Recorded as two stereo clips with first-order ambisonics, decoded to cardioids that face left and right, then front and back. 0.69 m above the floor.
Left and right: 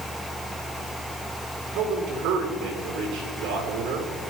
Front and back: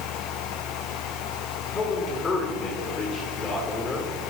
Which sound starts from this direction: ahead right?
A man speaking, at 1.7 s.